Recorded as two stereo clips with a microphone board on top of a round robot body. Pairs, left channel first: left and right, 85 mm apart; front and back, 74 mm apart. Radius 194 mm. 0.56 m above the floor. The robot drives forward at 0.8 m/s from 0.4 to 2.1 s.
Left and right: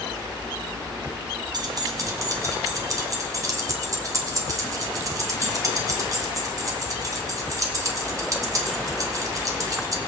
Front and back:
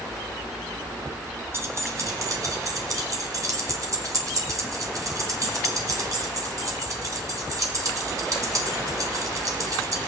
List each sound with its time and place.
1.5 s keys jangling: 125° right, 1.4 m; by 10.0 s 140° right, 1.7 m